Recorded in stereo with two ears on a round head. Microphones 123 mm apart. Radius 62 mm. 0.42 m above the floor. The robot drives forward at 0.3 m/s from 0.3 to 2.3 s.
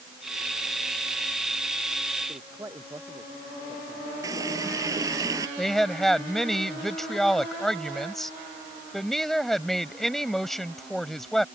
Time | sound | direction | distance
2.3 | a man speaking | 15° right (ahead or behind) | ?
4.2 | a running tap | 25° right (ahead or behind) | ?
5.6 | a woman speaking | 5° left (ahead or behind) | ?